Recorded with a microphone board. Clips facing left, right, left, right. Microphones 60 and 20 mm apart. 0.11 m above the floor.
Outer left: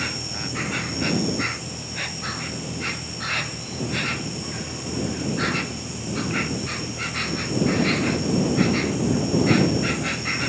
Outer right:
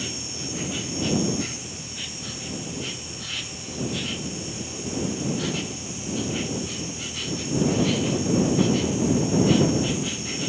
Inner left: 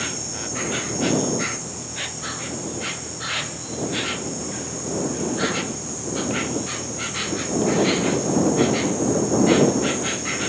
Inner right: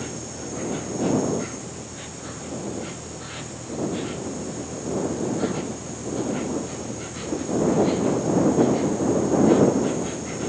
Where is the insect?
55° left (ahead or behind).